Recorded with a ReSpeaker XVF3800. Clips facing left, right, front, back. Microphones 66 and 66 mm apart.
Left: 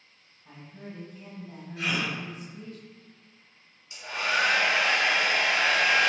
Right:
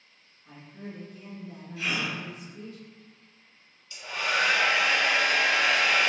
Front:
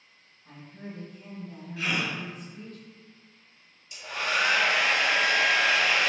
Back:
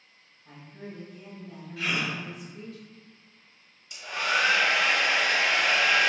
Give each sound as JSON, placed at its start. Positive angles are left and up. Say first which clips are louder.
{"t": 0.5, "sound": "a woman speaking", "louder": "right 1 dB, even", "azimuth_deg": 100, "distance_m": 1.5}
{"t": 1.8, "sound": "a gasp", "louder": "left 1 dB, even", "azimuth_deg": 80, "distance_m": 1.3}
{"t": 3.9, "sound": "a hair dryer", "louder": "left 1 dB, back 2 dB", "azimuth_deg": 160, "distance_m": 1.1}